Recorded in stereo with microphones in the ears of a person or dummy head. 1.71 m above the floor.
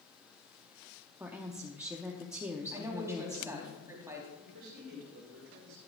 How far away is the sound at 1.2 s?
About 0.7 m.